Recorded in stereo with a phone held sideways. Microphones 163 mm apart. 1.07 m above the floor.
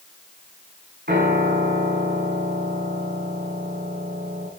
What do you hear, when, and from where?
1.1 s a piano: 75° right (ahead or behind), 8.5 m